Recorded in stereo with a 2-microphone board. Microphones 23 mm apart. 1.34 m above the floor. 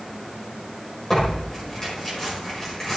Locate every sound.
1.1 s tearing paper: 15° left (ahead or behind), 4.5 m